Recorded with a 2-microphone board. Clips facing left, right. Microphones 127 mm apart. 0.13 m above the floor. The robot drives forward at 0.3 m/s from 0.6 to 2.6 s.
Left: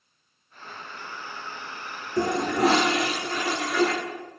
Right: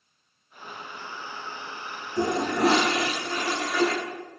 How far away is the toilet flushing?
About 1.6 m.